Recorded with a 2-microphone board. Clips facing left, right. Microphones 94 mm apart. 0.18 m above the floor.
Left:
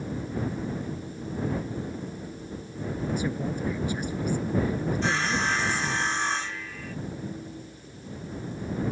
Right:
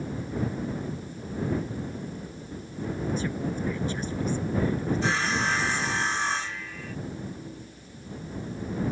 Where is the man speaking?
15° left (ahead or behind).